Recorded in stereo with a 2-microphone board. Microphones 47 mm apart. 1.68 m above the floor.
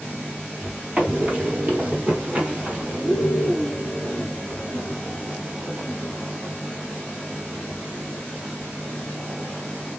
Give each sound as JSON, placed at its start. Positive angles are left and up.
{"t": 1.0, "sound": "running footsteps", "side_deg": -35, "distance_m": 1.9}